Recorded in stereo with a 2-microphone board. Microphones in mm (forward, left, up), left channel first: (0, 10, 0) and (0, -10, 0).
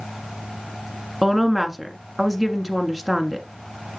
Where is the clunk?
I don't hear a clunk.